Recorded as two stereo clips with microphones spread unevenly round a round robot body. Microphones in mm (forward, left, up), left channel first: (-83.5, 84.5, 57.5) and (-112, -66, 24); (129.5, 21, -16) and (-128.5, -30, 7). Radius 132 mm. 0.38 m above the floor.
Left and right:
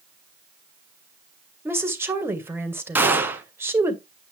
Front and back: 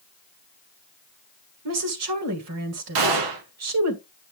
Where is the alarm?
I don't hear an alarm.